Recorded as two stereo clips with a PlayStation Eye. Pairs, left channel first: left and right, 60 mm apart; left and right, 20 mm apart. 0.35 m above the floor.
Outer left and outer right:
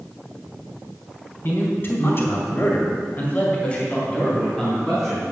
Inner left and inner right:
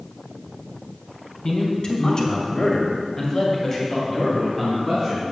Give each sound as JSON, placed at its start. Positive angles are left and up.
{"t": 1.4, "sound": "a man speaking", "side_deg": 35, "distance_m": 2.5}